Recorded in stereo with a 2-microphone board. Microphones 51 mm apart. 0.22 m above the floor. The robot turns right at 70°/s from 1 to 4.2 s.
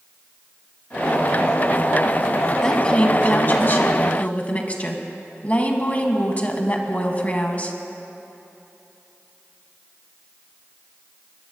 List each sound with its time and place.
2.6 s a woman speaking: 15° left, 1.7 m; by 7.8 s 130° left, 1.7 m